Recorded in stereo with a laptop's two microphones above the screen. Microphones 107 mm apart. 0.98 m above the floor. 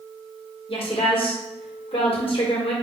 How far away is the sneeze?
No sneeze in this recording.